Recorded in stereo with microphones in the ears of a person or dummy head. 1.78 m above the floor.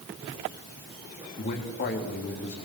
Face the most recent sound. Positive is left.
turn(degrees=45)  # may be behind; listen again after turning